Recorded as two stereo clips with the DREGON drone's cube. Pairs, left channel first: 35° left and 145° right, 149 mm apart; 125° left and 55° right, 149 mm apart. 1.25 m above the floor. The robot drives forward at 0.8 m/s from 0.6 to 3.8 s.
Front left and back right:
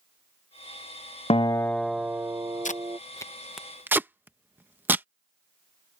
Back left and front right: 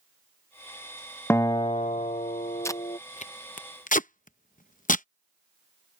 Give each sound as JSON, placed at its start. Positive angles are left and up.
{"t": 1.3, "sound": "a guitar", "azimuth_deg": 60}
{"t": 2.6, "sound": "tape being pulled", "azimuth_deg": 55}